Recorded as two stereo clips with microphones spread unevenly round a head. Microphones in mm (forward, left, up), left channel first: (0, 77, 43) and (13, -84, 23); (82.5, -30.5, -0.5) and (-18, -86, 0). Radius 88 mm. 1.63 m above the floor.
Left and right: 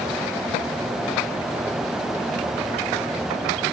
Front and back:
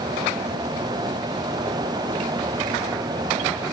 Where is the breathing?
I don't hear breathing.